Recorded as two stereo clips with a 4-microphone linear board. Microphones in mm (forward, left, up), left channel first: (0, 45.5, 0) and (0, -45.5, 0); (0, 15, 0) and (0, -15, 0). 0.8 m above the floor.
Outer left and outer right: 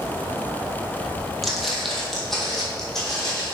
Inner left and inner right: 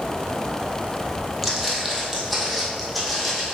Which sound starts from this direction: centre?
Footsteps, at 1.4 s.